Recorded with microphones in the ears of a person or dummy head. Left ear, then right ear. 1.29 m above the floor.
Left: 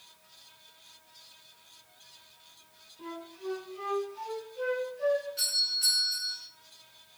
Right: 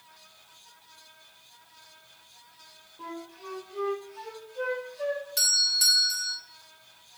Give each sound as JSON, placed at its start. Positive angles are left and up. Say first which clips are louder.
{"t": 3.0, "sound": "a flute", "louder": "right 1 dB", "side_deg": -55, "distance_m": 2.5}
{"t": 5.4, "sound": "a doorbell", "louder": "right 5 dB", "side_deg": -60, "distance_m": 2.5}